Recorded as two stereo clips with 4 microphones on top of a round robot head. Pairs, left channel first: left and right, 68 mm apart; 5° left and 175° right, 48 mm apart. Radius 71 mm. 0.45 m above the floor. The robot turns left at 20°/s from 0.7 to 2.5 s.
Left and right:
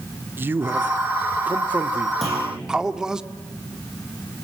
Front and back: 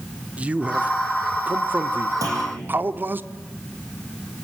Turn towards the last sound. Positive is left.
turn(degrees=175)